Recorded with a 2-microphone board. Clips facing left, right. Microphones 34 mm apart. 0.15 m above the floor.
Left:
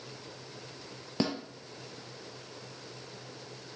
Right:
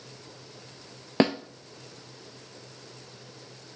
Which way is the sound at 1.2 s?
45° right (ahead or behind).